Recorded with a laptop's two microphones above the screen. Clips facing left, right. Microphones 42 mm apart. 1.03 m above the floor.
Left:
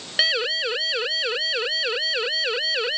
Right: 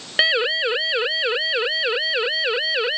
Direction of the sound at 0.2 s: 20° right (ahead or behind).